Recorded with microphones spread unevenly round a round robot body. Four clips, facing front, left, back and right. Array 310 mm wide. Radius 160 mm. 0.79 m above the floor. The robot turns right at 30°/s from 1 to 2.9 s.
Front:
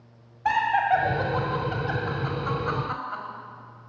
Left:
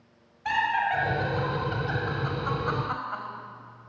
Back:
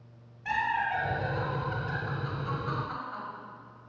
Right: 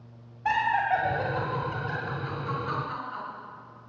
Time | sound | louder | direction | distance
0.5 | laughter | right 1 dB, front 8 dB | 20° right | 1.9 m